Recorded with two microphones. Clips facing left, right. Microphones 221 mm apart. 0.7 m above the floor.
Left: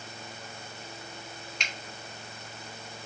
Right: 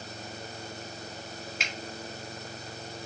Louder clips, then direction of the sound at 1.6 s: Right 3 dB; 5° right (ahead or behind).